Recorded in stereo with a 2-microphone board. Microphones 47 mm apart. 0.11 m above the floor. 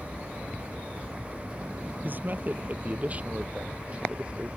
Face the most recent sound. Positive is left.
turn(degrees=-20)  # may be behind; listen again after turning